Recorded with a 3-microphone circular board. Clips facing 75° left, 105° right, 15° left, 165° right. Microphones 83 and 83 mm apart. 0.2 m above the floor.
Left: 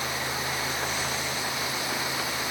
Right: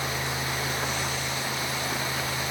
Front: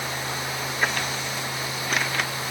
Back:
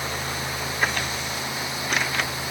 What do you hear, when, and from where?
Only background noise.